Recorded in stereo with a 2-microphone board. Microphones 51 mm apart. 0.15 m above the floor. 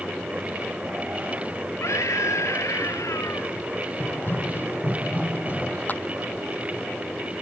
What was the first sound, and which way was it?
A scream, 75° left (ahead or behind).